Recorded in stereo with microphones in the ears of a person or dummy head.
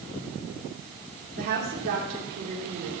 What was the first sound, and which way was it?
A woman speaking, 50° right (ahead or behind).